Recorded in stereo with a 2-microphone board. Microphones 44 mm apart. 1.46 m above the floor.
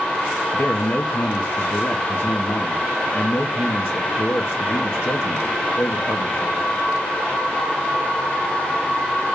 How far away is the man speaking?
About 1.2 m.